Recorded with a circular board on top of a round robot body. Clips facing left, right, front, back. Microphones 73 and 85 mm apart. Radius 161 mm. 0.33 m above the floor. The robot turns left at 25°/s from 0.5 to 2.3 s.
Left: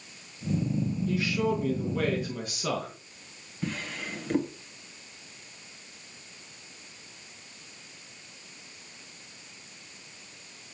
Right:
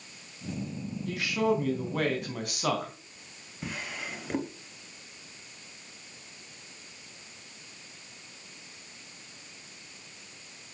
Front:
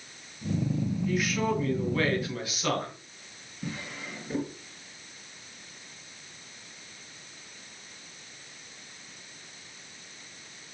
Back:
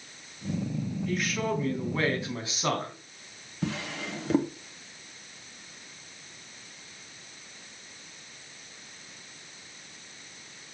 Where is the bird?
I don't hear a bird.